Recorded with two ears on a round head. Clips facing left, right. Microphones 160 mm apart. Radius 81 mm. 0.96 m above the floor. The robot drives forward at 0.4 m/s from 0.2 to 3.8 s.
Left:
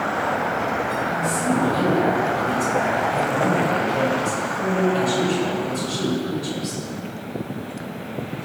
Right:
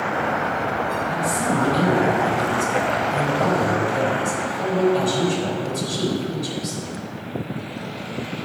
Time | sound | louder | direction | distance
1.1 | a woman speaking | left 2 dB | 5° right (ahead or behind) | 4.5 m